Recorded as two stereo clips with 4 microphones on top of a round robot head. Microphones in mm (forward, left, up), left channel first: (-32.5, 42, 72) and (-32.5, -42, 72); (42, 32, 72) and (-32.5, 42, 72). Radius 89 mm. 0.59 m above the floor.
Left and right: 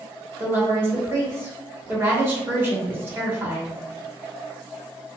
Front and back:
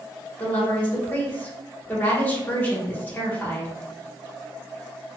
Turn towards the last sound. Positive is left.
turn(degrees=-50)